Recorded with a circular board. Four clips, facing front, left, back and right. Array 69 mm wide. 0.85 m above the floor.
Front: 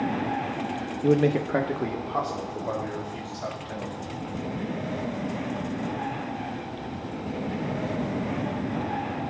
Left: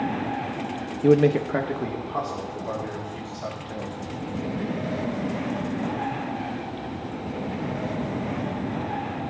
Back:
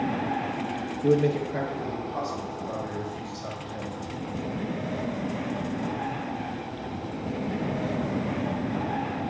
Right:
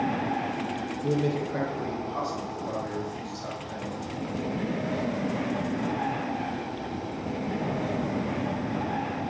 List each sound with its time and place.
1.0 s a man speaking: 85° left, 0.5 m; by 4.0 s 20° left, 4 m